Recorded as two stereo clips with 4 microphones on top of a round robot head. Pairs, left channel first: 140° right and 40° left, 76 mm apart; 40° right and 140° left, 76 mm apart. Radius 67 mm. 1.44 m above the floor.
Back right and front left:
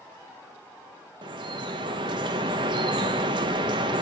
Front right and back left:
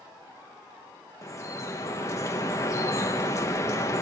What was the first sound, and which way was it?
Dripping, 10° left.